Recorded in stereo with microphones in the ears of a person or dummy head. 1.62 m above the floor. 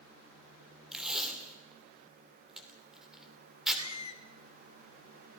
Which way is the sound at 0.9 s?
5° right (ahead or behind).